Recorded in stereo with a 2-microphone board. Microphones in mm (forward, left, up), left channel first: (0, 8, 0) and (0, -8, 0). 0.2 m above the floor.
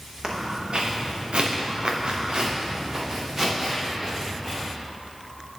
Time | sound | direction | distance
0.2 | footsteps | 50° right (ahead or behind) | 1.9 m